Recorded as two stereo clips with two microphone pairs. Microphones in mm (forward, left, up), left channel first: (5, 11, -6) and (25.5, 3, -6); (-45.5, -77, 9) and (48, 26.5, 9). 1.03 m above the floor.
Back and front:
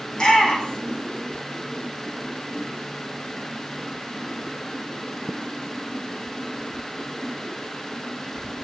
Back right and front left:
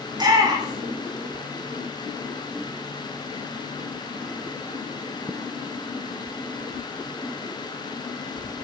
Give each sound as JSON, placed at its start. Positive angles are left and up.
{"t": 0.1, "sound": "a shout", "azimuth_deg": 105, "distance_m": 2.0}